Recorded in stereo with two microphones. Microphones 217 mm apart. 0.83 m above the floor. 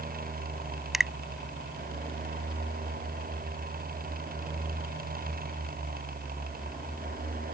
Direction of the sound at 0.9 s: Centre (ahead or behind).